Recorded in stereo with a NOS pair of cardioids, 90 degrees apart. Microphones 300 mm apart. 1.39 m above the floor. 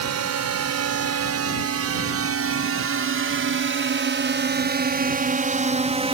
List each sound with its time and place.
0.0 s a drone: 60° right; by 6.1 s 20° right